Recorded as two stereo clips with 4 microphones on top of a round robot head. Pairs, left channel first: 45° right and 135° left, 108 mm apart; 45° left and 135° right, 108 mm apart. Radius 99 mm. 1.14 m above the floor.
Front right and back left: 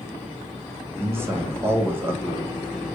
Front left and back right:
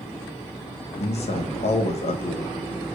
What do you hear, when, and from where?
1.0 s a man speaking: 65° left, 1.1 m